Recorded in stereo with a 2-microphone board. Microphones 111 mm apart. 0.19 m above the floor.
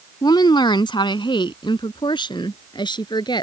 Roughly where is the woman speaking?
Left.